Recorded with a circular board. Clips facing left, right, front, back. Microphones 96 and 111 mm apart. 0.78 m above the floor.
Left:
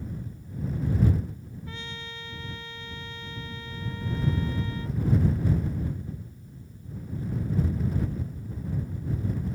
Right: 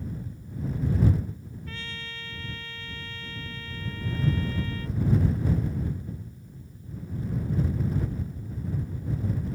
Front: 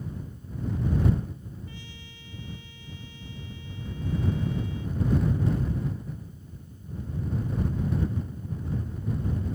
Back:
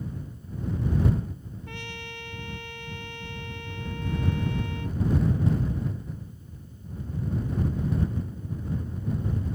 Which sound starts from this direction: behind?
A trumpet, at 1.7 s.